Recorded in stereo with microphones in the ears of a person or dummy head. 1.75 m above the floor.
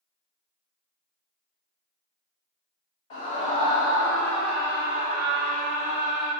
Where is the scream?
40° left (ahead or behind), 1.0 m; by 6.3 s 65° right (ahead or behind), 1.0 m.